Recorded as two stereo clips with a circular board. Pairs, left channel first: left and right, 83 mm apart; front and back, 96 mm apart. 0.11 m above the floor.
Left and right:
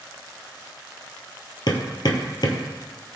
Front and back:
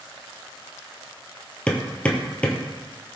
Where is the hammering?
75° left, 1.6 m.